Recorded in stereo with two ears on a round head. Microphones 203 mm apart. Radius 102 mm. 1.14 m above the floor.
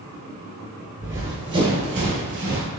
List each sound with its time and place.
1.0 s running footsteps: 10° right (ahead or behind), 1.2 m; by 2.7 s 45° right (ahead or behind), 1.7 m